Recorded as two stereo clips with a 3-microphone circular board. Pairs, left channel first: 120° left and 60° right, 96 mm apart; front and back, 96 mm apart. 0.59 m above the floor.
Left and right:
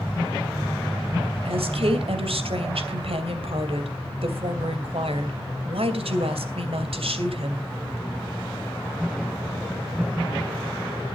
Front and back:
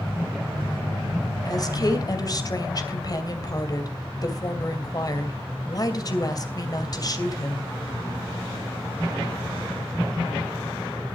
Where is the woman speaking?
50° right, 2.5 m.